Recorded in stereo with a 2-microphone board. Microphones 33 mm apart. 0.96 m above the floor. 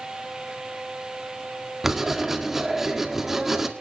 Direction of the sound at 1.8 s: 5° right (ahead or behind).